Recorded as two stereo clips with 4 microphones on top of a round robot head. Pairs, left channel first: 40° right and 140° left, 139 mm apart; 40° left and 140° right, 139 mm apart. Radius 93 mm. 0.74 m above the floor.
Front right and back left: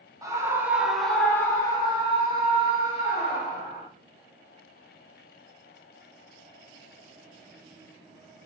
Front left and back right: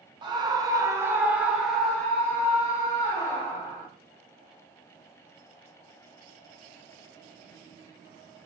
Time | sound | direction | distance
0.2 | a scream | 170° right | 1.3 m